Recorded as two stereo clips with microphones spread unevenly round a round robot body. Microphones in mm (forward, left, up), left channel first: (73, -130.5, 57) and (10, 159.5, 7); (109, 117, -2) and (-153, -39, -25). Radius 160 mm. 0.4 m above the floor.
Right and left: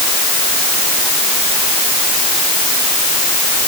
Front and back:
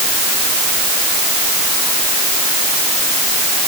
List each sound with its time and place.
Only background noise.